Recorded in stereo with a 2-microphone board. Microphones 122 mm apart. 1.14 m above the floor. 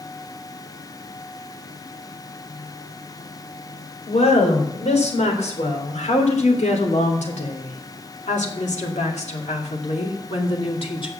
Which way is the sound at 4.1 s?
65° left (ahead or behind).